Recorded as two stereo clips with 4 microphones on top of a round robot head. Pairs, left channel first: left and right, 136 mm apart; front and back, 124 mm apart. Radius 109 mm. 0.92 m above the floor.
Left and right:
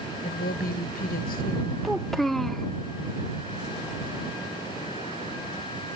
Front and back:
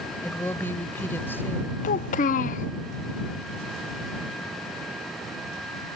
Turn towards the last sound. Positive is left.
turn(degrees=0)